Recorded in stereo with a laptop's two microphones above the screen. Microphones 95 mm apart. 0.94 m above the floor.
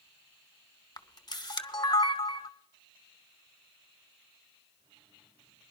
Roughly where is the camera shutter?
Left.